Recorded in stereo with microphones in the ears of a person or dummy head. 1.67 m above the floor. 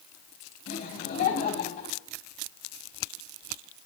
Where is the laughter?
55° left (ahead or behind), 3.5 m.